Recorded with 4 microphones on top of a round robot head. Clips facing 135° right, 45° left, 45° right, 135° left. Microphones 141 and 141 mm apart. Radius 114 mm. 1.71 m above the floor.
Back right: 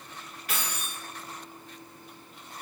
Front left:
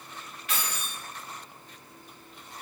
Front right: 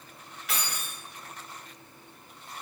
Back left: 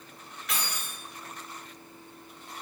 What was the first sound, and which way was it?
Keys jangling, 125° right.